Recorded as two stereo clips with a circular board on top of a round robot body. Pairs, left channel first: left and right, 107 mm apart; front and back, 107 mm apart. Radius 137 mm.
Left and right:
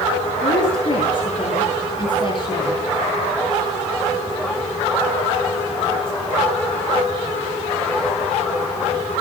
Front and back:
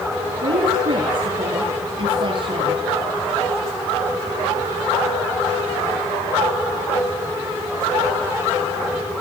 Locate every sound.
0.4 s a woman speaking: 135° left, 9.5 m